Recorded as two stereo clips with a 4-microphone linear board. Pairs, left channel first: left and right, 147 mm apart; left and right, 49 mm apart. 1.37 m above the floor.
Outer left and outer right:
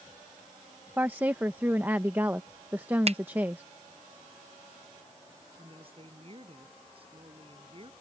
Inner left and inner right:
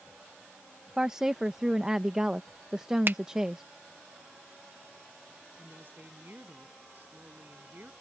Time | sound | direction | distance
1.0 | a woman speaking | 15° right (ahead or behind) | ?
3.1 | a finger snap | 45° right (ahead or behind) | ?
5.6 | a woman speaking | 40° right (ahead or behind) | ?